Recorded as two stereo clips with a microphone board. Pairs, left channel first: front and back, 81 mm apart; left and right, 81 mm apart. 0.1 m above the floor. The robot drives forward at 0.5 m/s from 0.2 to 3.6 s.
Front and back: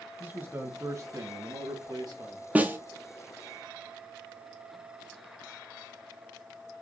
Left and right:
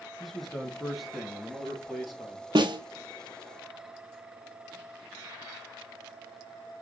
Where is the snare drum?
110° right, 0.7 m; by 2.8 s 120° right, 0.7 m.